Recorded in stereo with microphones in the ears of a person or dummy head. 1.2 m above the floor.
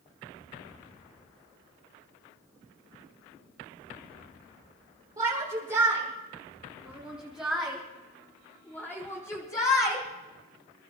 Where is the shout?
20° right (ahead or behind), 6 m; by 10.1 s 30° left (ahead or behind), 3.5 m.